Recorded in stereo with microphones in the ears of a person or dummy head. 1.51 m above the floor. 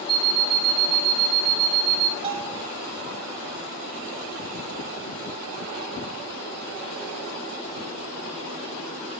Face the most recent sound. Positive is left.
turn(degrees=-25)  # may be behind; listen again after turning